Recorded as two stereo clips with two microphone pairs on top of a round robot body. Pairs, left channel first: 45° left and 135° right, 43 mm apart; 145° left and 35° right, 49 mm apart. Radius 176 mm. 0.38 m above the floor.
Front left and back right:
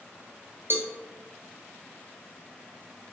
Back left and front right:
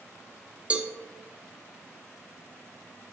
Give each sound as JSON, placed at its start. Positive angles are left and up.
{"t": 0.7, "sound": "a cowbell", "azimuth_deg": -105, "distance_m": 0.6}